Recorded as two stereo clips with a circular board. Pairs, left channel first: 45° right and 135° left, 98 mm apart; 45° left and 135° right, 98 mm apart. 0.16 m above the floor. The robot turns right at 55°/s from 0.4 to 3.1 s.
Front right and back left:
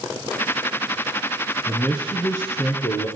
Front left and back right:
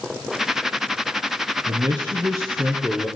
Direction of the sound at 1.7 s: 120° right.